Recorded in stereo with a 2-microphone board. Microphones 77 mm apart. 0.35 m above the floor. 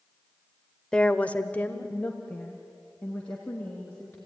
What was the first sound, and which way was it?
A woman speaking, 10° left (ahead or behind).